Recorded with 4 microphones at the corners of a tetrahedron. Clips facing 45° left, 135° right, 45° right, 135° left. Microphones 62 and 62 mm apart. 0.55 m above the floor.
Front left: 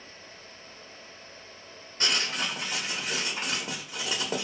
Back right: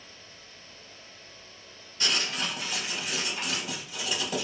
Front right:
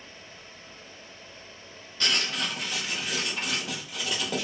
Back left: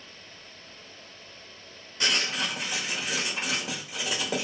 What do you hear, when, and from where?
2.0 s writing: 65° left, 0.9 m